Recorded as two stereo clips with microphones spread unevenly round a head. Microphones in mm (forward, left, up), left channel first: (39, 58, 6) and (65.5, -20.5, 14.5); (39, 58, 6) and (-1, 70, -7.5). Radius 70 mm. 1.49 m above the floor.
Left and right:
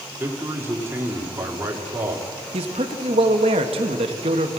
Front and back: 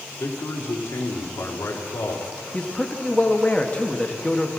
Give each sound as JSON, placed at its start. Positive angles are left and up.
{"t": 0.2, "sound": "a man speaking", "azimuth_deg": -10, "distance_m": 4.0}
{"t": 2.5, "sound": "a man speaking", "azimuth_deg": -90, "distance_m": 1.7}